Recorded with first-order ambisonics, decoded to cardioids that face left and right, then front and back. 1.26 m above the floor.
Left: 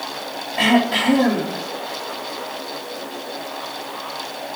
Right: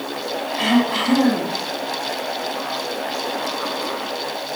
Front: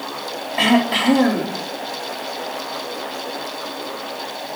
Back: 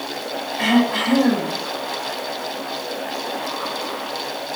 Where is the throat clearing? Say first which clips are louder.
Left 3 dB, front 3 dB; 25° left, 3 m.